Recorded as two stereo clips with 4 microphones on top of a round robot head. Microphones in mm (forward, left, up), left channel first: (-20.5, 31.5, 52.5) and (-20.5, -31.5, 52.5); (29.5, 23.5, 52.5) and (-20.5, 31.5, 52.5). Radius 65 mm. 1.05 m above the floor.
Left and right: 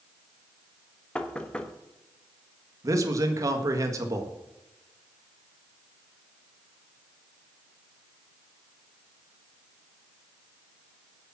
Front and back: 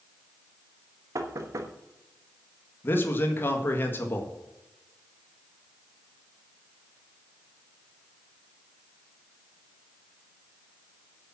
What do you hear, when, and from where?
1.1 s knocking: 165° left, 1.1 m
2.8 s a man speaking: 55° right, 1.6 m